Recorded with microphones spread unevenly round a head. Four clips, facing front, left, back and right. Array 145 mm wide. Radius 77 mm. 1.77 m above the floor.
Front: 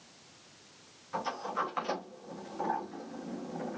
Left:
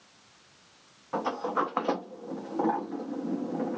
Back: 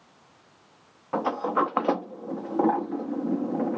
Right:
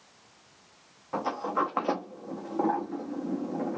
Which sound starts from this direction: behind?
A sliding door, at 1.1 s.